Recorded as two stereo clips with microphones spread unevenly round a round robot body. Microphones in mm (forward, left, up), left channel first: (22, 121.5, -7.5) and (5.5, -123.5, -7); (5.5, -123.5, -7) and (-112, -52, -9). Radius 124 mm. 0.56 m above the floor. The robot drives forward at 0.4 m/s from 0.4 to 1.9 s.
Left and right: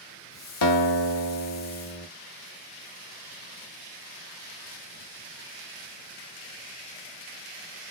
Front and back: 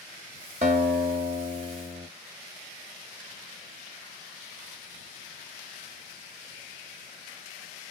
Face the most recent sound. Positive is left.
turn(degrees=125)